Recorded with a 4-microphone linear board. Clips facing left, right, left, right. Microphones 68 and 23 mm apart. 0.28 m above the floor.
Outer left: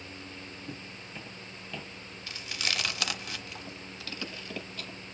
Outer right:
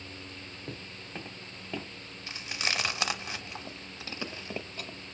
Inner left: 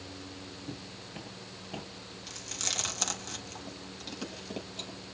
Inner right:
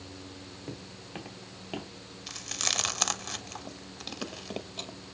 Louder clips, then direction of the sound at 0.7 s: Outer right 1 dB, inner right 1 dB; 55° right (ahead or behind).